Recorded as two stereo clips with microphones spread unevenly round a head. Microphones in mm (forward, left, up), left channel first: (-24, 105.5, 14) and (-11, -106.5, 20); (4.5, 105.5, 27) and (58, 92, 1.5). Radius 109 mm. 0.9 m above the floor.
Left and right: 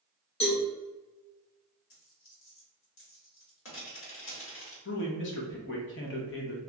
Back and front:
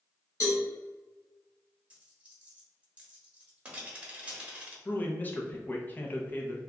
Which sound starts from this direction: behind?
A cowbell, at 0.4 s.